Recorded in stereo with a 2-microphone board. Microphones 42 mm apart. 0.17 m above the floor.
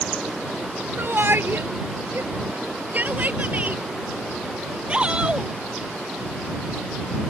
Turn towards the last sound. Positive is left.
turn(degrees=-15)  # may be behind; listen again after turning